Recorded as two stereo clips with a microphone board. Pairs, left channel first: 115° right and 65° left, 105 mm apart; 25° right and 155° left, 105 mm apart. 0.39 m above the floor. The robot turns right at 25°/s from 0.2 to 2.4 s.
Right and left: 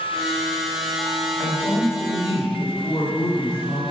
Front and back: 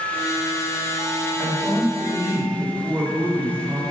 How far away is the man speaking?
About 1.8 m.